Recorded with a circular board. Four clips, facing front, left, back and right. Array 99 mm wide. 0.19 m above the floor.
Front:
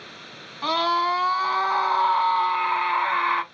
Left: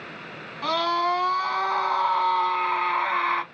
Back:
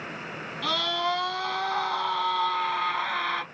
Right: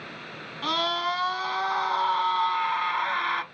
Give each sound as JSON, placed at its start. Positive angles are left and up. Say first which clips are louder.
{"t": 0.6, "sound": "a scream", "louder": "left 4 dB, front 7 dB", "azimuth_deg": 30, "distance_m": 1.6}